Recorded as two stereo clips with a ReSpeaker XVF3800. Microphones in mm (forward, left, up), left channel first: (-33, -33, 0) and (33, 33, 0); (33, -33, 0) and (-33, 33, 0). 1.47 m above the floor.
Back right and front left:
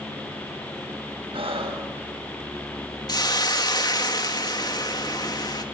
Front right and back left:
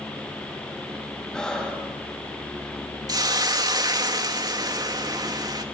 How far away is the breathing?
About 7.5 m.